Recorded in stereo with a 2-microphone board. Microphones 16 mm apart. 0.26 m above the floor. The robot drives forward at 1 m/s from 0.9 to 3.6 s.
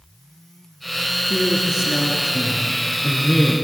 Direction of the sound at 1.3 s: 70° right (ahead or behind).